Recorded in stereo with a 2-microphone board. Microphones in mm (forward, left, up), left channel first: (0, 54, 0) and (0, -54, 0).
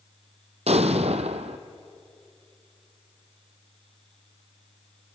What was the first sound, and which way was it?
An explosion, 75° right (ahead or behind).